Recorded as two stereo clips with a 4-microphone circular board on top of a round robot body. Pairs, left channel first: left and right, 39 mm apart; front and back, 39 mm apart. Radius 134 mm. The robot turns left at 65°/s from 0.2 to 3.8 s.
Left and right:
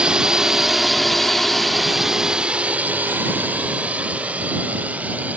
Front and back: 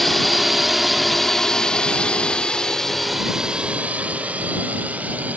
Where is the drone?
80° right; by 5.4 s 135° right.